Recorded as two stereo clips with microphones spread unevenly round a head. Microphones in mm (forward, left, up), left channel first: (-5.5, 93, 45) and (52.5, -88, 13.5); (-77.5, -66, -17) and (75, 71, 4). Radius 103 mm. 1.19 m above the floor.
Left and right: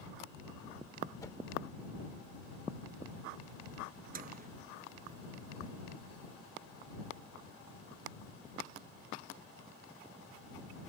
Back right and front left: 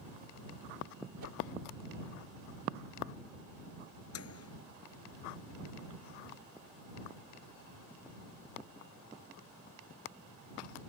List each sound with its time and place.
1.2 s a whoosh: 35° left
4.1 s a microwave: 120° right